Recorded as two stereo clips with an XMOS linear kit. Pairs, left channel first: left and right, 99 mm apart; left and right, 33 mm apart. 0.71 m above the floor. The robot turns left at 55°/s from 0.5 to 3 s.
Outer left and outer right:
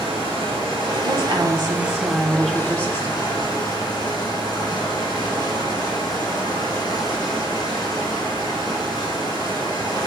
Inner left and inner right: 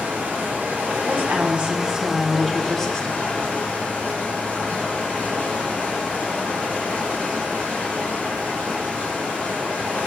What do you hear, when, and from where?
0.0 s running water: 90° right, 5 m; by 10.1 s 135° left, 5 m
1.1 s a woman speaking: 100° right, 1.5 m; by 3.3 s 155° left, 1.5 m